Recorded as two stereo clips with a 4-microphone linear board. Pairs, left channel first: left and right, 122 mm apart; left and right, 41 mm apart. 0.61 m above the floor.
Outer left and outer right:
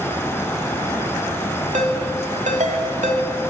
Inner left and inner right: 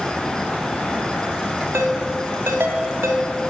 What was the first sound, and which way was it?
A ringtone, 85° right.